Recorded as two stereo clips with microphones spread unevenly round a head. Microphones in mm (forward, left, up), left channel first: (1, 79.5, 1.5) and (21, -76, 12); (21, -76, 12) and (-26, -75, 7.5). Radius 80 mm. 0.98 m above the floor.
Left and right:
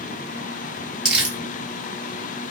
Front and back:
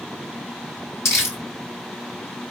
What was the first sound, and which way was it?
Crumpling, 5° left.